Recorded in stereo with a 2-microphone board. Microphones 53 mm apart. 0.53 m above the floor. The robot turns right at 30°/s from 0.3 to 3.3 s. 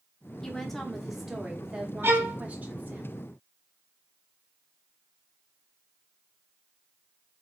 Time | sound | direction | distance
0.4 | a woman speaking | 165° left | 0.8 m
2.0 | a violin | 50° right (ahead or behind) | 0.7 m